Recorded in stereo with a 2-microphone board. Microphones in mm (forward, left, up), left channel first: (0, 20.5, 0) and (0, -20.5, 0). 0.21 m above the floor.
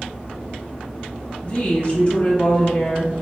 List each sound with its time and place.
1.4 s a woman speaking: 30° left (ahead or behind), 1.2 m